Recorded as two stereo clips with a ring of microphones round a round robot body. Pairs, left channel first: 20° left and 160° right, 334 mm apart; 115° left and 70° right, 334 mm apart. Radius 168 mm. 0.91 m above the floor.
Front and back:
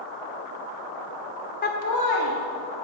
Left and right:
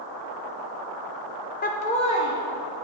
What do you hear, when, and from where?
1.6 s laughter: 70° left, 0.5 m; by 2.8 s 30° left, 1.4 m